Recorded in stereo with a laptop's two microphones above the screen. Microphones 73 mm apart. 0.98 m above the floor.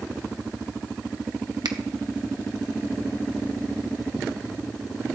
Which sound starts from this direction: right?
A finger snap, at 1.6 s.